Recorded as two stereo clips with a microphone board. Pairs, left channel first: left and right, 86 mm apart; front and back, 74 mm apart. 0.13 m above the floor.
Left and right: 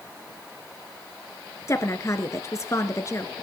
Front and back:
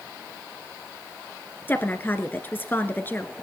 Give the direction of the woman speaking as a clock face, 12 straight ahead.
10 o'clock.